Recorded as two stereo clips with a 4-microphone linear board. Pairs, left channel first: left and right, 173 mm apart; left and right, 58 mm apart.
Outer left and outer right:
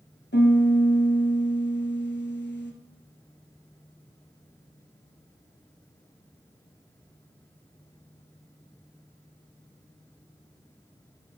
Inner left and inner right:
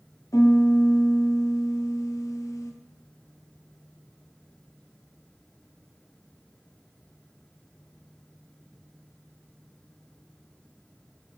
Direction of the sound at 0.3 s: 85° left.